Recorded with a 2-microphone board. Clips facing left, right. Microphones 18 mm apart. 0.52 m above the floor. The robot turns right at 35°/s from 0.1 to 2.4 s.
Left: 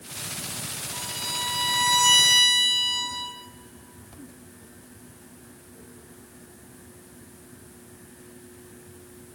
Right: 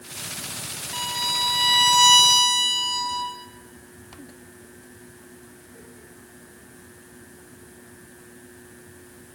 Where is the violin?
75° right, 1.3 m; by 3.3 s 25° right, 1.3 m.